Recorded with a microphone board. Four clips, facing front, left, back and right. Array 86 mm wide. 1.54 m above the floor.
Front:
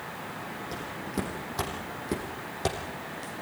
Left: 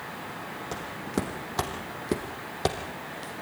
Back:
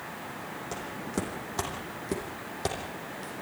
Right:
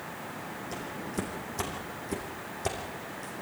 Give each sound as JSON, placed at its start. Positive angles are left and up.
{"t": 0.7, "sound": "footsteps", "azimuth_deg": 110, "distance_m": 4.5}